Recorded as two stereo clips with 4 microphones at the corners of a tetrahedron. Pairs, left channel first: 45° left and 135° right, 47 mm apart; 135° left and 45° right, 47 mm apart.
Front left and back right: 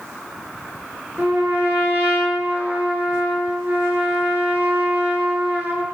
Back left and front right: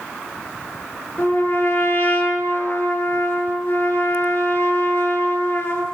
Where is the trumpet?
170° left, 7.5 m.